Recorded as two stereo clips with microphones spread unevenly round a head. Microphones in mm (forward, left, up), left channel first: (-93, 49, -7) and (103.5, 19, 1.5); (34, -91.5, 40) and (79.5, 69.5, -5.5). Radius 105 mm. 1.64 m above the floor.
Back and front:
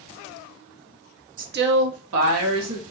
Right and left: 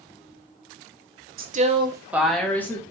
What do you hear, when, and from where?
1.4 s a woman speaking: 45° left, 0.7 m; by 2.8 s 30° right, 1.4 m